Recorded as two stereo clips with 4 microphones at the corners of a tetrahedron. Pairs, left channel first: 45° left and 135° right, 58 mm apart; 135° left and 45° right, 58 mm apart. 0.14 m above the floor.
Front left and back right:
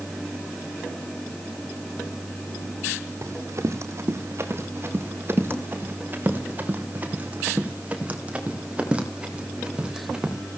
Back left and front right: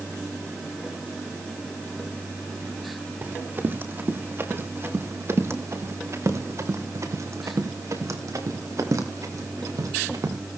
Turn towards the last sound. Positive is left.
turn(degrees=-60)